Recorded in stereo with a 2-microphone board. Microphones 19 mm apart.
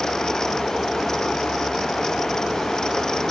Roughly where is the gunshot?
No gunshot in this recording.